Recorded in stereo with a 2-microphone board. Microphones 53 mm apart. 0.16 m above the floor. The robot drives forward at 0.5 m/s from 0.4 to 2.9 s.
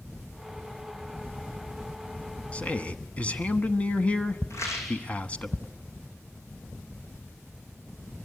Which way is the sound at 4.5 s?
60° left (ahead or behind).